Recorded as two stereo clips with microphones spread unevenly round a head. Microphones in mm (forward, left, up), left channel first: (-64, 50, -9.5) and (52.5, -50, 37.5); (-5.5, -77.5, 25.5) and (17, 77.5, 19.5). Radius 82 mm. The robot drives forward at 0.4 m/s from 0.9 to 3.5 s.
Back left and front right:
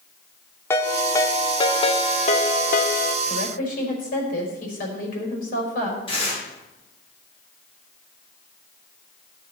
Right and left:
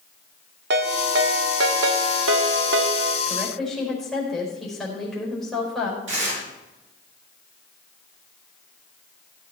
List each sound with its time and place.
0.7 s a ringtone: 60° left, 1.3 m; by 3.2 s 105° left, 1.1 m
3.3 s a woman speaking: 175° left, 5.5 m
6.1 s tearing paper: 80° left, 7.5 m